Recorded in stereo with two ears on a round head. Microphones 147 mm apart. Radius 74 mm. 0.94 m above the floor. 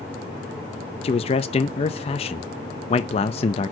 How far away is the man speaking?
About 0.6 m.